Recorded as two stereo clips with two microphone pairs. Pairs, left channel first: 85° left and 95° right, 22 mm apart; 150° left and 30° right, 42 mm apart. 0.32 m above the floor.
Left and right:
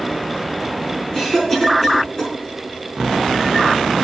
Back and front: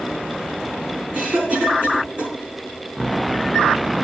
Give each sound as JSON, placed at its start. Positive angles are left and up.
{"t": 1.1, "sound": "a cough", "azimuth_deg": 30, "distance_m": 4.5}